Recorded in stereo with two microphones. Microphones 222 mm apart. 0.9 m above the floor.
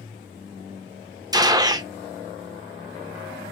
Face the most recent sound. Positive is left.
turn(degrees=-15)  # may be behind; listen again after turning